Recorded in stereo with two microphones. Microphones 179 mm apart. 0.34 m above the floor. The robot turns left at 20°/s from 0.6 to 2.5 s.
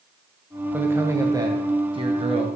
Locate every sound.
0.7 s a man speaking: 15° right, 1.7 m; by 2.5 s 50° right, 1.7 m